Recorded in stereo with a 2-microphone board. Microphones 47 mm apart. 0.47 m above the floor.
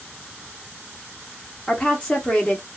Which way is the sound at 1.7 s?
15° left (ahead or behind).